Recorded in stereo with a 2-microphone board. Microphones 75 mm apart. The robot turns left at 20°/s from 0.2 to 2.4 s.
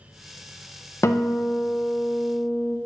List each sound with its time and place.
1.0 s a guitar: 40° left (ahead or behind), 0.6 m; by 2.8 s 20° left (ahead or behind), 0.6 m